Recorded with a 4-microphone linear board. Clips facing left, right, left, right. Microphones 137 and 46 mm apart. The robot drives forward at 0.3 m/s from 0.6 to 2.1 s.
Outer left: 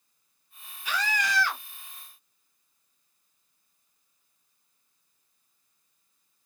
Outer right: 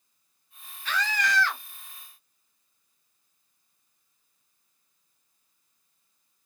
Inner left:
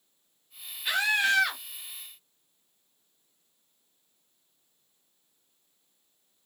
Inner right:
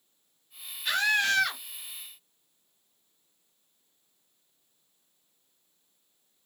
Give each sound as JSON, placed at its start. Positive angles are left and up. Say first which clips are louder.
{"t": 0.8, "sound": "a scream", "louder": "outer right 1 dB, even", "side_deg": 10, "distance_m": 1.2}